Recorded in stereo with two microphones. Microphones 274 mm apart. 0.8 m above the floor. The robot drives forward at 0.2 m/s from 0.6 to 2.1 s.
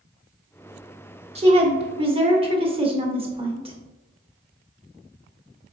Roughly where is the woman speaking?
Right.